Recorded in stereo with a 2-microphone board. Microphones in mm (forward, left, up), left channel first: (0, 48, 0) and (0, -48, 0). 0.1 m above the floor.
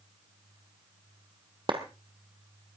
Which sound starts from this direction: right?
A clap, at 1.7 s.